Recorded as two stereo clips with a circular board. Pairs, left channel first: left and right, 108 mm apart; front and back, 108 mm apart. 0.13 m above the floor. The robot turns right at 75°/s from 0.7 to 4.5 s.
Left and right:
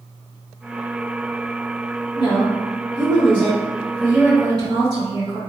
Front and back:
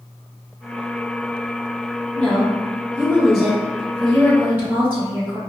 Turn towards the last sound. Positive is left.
turn(degrees=-115)